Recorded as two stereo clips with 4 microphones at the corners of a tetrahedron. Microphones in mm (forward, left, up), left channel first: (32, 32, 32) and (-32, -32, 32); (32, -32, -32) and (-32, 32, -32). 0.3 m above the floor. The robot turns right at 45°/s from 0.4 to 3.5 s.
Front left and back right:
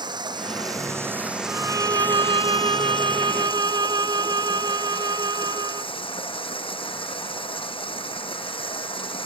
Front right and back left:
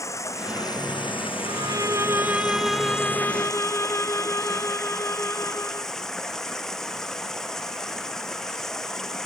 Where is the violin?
165° left; by 5.9 s 100° right.